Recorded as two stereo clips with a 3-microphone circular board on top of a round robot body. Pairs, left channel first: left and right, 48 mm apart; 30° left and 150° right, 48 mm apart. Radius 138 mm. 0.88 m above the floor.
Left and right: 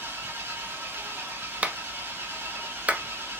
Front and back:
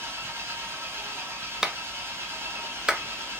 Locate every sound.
0.0 s an engine running: 125° right, 1.5 m
1.6 s a clap: 90° right, 0.6 m